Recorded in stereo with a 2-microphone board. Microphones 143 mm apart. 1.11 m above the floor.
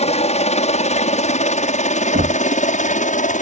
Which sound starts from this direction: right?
Knocking, at 2.1 s.